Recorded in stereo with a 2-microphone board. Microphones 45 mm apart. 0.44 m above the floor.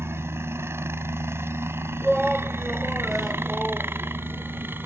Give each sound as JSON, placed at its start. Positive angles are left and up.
{"t": 0.0, "sound": "a helicopter", "side_deg": -65}
{"t": 2.0, "sound": "a shout", "side_deg": 0}